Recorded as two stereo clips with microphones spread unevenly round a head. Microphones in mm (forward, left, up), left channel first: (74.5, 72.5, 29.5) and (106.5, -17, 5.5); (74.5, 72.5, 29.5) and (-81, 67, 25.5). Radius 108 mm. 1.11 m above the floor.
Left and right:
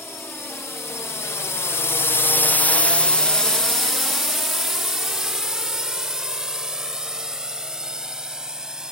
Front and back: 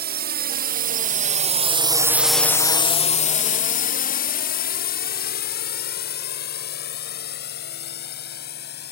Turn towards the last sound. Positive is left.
turn(degrees=10)